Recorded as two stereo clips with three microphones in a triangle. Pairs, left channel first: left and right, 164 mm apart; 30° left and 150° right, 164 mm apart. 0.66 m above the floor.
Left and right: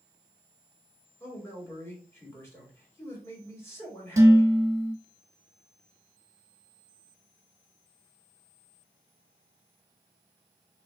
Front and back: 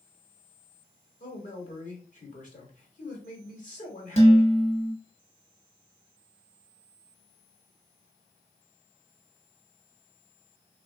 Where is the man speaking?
20° left, 1.5 m.